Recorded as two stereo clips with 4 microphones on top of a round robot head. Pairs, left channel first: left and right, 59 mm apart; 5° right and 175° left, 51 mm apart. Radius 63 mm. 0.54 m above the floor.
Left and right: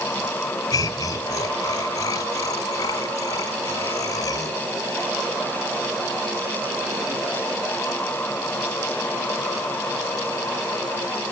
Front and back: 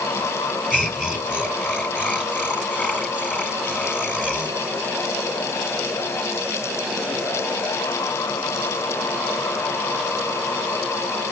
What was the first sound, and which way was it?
Laughter, 60° left.